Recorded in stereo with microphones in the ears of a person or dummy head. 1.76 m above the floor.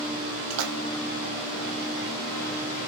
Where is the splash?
75° right (ahead or behind), 0.6 m.